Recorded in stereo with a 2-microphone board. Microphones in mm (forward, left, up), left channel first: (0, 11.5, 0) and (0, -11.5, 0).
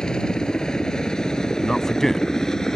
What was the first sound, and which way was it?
A helicopter, 35° left (ahead or behind).